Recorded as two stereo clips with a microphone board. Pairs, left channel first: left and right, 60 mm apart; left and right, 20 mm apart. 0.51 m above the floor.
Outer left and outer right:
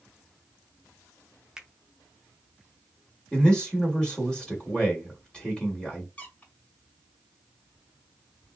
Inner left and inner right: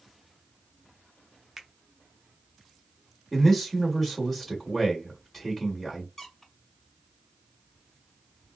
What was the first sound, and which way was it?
A finger snap, 10° right (ahead or behind).